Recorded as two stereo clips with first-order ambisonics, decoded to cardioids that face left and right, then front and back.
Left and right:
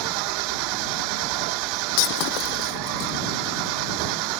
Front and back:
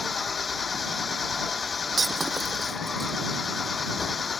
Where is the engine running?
75° right.